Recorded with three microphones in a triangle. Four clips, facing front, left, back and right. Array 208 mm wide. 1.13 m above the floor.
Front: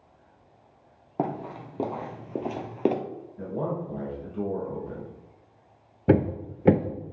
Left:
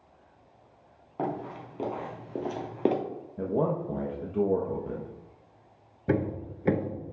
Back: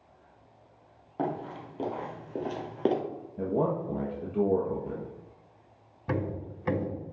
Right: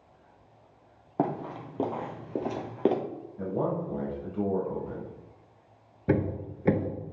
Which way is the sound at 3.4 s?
130° left.